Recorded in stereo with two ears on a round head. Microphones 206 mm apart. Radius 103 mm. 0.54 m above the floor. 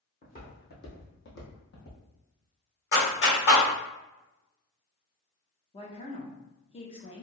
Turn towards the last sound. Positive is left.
turn(degrees=25)  # may be behind; listen again after turning